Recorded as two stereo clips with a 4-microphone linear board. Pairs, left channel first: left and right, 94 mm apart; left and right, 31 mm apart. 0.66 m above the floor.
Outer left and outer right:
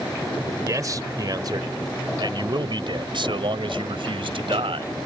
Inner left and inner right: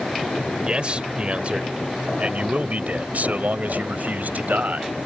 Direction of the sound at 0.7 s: 40° right (ahead or behind).